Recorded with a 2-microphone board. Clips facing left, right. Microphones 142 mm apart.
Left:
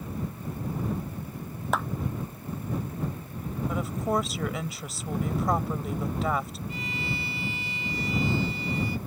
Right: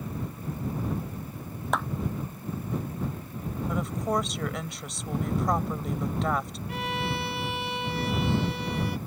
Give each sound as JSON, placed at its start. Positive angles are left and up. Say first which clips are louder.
{"t": 1.7, "sound": "a clap", "louder": "even", "side_deg": 0}
{"t": 3.7, "sound": "a woman speaking", "louder": "even", "side_deg": 0}
{"t": 6.7, "sound": "a violin", "louder": "right 7 dB", "side_deg": -65}